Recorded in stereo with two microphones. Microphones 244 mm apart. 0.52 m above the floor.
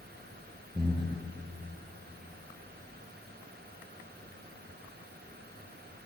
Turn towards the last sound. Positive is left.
turn(degrees=-20)  # may be behind; listen again after turning